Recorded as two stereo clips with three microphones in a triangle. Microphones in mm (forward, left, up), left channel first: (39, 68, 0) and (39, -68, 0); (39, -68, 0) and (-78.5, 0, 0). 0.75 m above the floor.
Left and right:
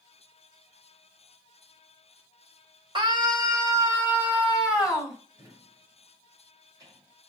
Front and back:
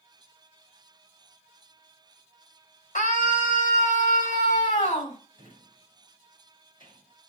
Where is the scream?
40° right, 3.5 m; by 5.2 s straight ahead, 4.5 m.